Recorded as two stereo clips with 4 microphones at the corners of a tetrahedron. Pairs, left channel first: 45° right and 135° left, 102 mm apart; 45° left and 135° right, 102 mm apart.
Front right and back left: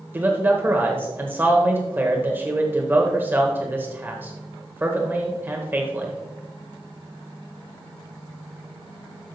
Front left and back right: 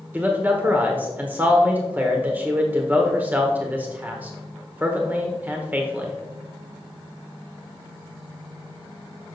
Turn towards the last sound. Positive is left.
turn(degrees=175)